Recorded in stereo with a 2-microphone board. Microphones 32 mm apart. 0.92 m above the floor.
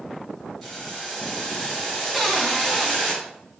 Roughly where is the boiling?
Centre.